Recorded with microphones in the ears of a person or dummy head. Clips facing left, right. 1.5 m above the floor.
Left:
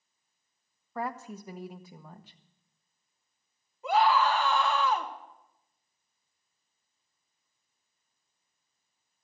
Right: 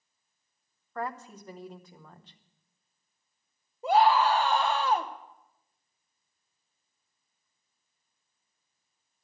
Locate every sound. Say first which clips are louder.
0.9 s a woman speaking: left 1 dB; 5° left (ahead or behind), 1.0 m
3.8 s a scream: right 2 dB; 30° right (ahead or behind), 1.6 m